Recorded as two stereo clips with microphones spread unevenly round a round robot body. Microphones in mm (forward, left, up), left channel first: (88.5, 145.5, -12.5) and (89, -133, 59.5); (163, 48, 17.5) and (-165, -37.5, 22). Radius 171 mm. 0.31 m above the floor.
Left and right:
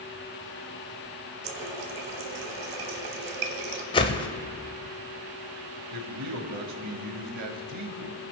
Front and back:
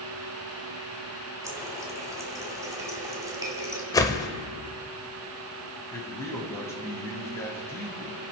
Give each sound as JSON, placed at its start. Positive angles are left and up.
{"t": 1.4, "sound": "a running tap", "azimuth_deg": -85, "distance_m": 1.4}
{"t": 3.9, "sound": "a whoosh", "azimuth_deg": 85, "distance_m": 0.9}
{"t": 5.9, "sound": "a man speaking", "azimuth_deg": -65, "distance_m": 2.0}